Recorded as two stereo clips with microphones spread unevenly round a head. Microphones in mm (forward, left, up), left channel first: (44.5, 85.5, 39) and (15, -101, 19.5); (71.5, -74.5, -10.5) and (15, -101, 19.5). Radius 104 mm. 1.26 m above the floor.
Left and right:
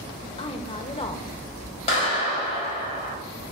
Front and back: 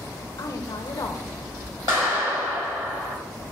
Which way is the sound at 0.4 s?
20° left.